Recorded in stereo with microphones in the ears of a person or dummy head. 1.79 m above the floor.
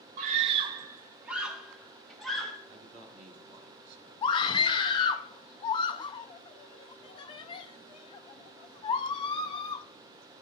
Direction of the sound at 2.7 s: 35° right (ahead or behind).